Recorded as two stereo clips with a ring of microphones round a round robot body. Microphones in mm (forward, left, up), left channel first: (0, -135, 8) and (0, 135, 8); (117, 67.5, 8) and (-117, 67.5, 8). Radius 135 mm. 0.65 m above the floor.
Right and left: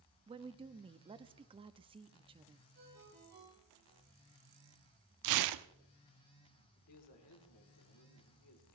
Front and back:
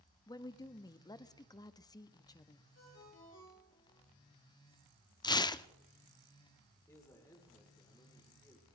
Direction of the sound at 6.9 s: 80° right.